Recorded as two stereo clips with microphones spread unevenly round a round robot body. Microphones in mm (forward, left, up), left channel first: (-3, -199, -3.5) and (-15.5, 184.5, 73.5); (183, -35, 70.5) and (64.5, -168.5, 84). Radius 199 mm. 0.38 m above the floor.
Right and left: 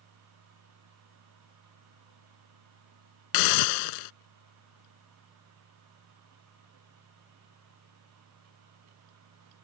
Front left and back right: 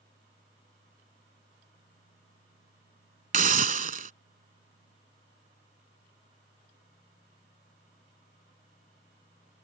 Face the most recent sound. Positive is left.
turn(degrees=-85)